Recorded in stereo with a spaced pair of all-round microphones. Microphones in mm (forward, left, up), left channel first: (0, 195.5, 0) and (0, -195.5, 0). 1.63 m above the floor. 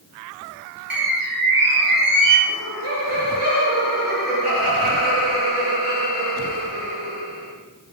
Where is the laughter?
80° right, 4 m.